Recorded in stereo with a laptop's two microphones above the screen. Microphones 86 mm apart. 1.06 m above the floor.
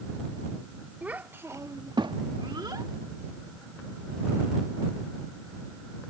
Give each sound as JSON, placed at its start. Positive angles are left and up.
{"t": 1.0, "sound": "a child speaking", "side_deg": -15}